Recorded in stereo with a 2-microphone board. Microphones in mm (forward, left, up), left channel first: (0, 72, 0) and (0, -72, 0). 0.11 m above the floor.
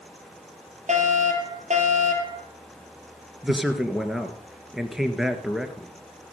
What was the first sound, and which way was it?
A fire alarm, 55° right (ahead or behind).